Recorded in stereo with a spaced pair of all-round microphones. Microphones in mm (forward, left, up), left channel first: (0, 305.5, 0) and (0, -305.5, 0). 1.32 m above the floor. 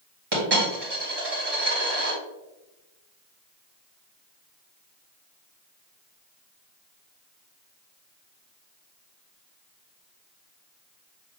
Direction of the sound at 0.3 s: 40° right (ahead or behind).